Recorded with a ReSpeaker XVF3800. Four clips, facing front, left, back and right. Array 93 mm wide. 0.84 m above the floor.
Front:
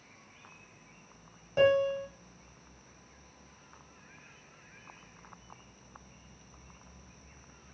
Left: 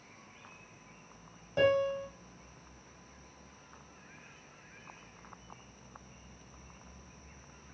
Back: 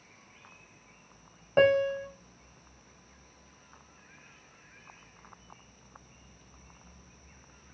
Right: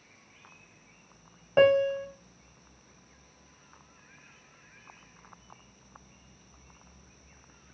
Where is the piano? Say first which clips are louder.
Right 6 dB, back 2 dB; 130° right, 1.3 m.